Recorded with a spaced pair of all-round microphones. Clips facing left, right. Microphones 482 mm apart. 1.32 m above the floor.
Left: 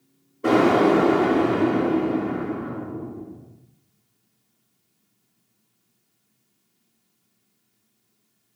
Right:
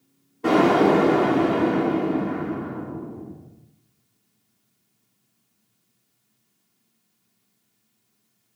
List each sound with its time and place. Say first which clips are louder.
0.4 s an explosion: even; 10° right (ahead or behind), 0.8 m